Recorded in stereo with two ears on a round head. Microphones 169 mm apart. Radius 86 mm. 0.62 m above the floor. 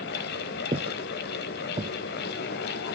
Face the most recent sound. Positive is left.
turn(degrees=-25)  # may be behind; listen again after turning